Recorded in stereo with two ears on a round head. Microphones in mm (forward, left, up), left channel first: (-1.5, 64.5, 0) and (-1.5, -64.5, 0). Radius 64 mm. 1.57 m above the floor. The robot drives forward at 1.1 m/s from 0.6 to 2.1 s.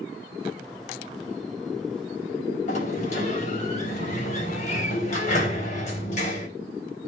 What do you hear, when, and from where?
2.7 s a sliding door: 55° left (ahead or behind), 3.5 m